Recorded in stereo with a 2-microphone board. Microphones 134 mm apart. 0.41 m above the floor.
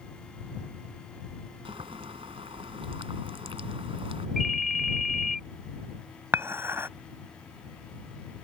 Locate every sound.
1.6 s boiling: 40° right (ahead or behind)
4.4 s a ringtone: centre (ahead or behind)
6.3 s dishes clattering: 20° right (ahead or behind)